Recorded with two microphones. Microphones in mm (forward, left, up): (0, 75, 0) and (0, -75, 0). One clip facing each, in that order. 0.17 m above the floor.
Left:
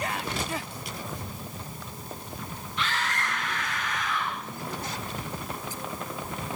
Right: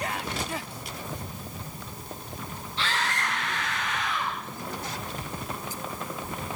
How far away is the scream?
About 6 m.